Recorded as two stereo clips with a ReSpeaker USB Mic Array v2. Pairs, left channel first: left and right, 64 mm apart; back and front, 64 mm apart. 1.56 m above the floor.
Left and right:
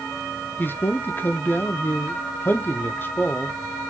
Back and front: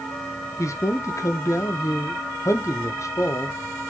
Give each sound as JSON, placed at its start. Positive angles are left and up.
{"t": 0.6, "sound": "a man speaking", "azimuth_deg": 145, "distance_m": 1.0}